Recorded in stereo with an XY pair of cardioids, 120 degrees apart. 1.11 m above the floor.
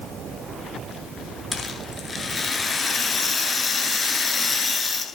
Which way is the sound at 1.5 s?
25° left.